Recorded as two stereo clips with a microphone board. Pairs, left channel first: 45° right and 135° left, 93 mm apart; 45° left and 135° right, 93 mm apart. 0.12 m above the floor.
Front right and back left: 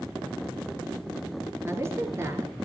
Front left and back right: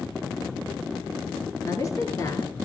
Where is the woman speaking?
85° left, 2.5 m.